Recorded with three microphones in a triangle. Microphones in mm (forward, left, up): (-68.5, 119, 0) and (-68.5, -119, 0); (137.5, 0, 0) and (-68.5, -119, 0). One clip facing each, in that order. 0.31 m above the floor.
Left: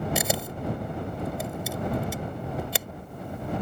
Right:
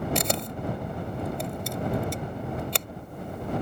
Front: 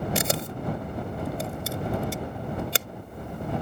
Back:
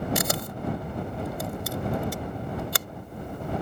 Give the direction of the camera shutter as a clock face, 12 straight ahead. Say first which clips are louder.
Even, front 1 dB; 12 o'clock.